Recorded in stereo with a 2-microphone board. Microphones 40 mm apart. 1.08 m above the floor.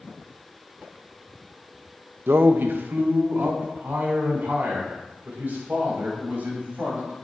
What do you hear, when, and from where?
2.3 s a man speaking: 80° right, 0.6 m; by 7.1 s 55° right (ahead or behind), 6.5 m